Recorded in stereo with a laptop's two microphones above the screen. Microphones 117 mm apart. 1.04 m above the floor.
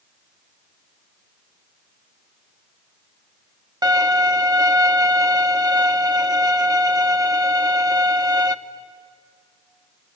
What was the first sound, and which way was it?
A violin, 35° right (ahead or behind).